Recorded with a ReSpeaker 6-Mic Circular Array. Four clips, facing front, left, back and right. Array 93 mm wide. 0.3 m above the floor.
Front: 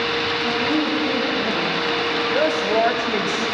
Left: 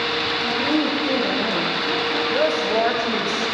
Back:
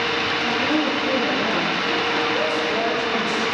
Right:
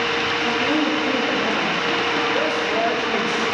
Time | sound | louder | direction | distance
0.4 | a woman speaking | even, even | 105° left | 5 m
2.3 | a woman speaking | left 2 dB, front 3 dB | 35° left | 1.3 m